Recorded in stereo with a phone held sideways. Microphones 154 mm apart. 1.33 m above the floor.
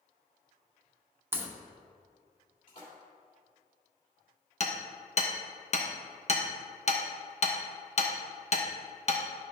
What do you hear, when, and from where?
1.3 s a crack: 15° right (ahead or behind), 1.0 m
2.7 s a splash: 55° left (ahead or behind), 2.5 m
4.6 s hammering: 45° left (ahead or behind), 0.9 m